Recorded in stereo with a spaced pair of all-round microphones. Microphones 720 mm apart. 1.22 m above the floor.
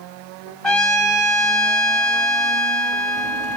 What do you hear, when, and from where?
0.6 s a trumpet: centre (ahead or behind), 2 m